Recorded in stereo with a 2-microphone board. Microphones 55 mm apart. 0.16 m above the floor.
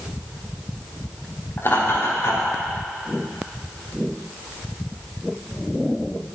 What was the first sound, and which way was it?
Laughter, 50° left (ahead or behind).